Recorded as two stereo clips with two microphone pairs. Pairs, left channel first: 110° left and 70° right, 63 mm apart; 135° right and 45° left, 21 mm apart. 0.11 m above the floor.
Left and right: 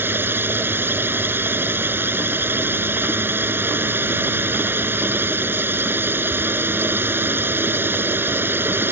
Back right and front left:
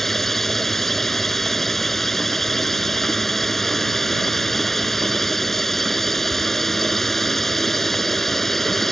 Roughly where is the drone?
Right.